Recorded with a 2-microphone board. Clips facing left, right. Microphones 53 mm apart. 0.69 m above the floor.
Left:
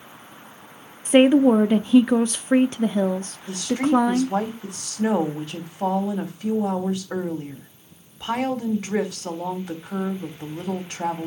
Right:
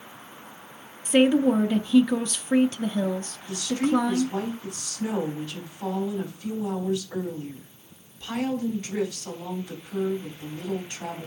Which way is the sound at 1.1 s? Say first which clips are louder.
Left 5 dB; 35° left (ahead or behind).